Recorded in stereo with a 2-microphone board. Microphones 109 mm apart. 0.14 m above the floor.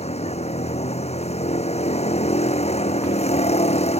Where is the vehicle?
75° left (ahead or behind).